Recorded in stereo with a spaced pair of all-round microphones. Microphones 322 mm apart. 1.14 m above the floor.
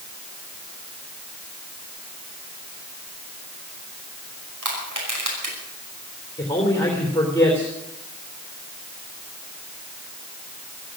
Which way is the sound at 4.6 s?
85° right.